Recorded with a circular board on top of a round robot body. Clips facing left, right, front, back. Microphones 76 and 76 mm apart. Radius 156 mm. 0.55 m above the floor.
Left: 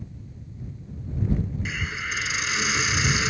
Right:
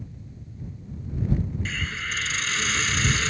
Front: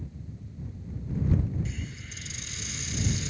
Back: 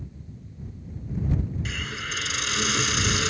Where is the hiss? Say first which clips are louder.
Left 1 dB, back 7 dB; 165° left.